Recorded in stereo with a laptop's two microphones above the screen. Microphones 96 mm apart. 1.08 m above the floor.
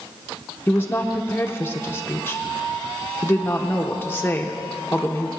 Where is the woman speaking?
20° left (ahead or behind), 0.8 m.